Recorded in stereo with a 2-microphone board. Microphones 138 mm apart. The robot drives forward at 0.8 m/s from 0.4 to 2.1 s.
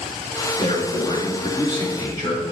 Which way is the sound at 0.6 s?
45° left (ahead or behind).